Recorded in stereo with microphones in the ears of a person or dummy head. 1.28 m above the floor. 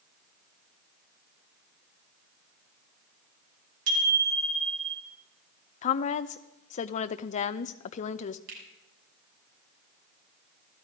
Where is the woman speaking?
35° left (ahead or behind), 0.5 m.